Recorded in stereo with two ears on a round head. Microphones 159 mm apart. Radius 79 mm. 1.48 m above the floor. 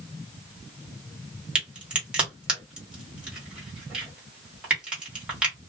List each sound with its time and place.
1.6 s a crack: 5° right (ahead or behind), 1.5 m